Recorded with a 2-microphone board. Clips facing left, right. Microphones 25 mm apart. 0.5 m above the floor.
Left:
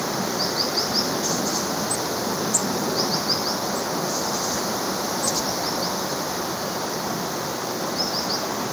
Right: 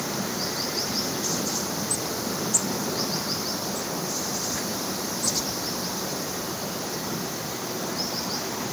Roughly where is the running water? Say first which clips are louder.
Left 4 dB; left.